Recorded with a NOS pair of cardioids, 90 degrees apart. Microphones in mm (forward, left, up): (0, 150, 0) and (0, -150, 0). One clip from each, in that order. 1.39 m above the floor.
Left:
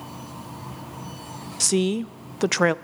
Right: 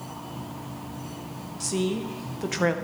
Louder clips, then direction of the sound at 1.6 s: Left 5 dB; 65° left.